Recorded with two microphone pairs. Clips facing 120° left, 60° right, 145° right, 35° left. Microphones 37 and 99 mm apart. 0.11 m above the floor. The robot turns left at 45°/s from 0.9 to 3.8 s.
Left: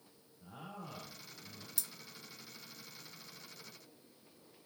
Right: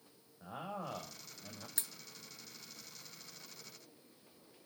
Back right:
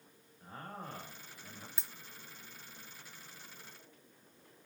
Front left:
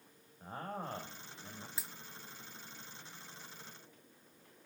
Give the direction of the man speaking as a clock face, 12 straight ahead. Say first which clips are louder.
Right 6 dB, front left 4 dB; 1 o'clock.